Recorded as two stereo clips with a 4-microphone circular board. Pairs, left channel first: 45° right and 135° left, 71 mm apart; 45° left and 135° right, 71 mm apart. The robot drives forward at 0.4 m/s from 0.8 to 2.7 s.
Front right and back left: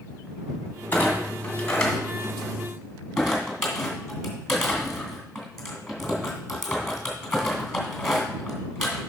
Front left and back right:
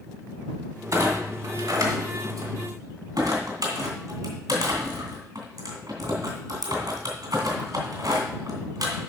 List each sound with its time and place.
0.9 s a clunk: 110° right, 1.9 m; by 9.0 s 130° right, 2.5 m